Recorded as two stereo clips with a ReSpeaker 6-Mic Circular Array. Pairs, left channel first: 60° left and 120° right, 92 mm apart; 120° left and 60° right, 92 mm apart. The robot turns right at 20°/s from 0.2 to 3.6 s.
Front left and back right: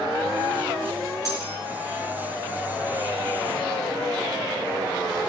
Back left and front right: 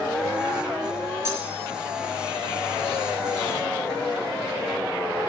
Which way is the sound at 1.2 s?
Straight ahead.